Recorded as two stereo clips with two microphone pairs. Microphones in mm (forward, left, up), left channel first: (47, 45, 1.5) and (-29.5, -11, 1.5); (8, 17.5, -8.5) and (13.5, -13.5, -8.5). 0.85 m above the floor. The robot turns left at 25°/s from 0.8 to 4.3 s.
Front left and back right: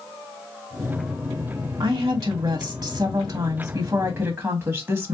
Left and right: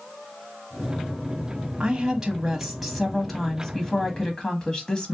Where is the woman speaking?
145° right, 0.8 m; by 5.1 s 155° left, 0.8 m.